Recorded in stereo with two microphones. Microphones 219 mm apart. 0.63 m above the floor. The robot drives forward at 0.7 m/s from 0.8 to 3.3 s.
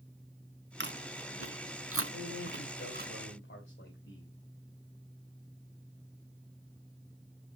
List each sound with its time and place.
0.8 s chewing: 55° right (ahead or behind), 1.1 m; by 3.1 s 45° right (ahead or behind), 1.3 m
2.1 s a man speaking: 70° left (ahead or behind), 3 m; by 4.3 s 60° left (ahead or behind), 3.5 m